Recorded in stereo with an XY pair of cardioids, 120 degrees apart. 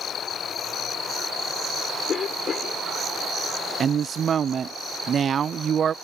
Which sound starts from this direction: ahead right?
A woman speaking, at 3.8 s.